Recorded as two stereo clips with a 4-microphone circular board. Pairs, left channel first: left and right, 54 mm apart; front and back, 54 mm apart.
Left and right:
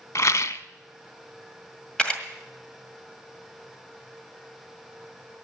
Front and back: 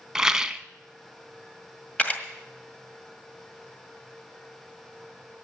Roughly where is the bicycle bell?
No bicycle bell in this recording.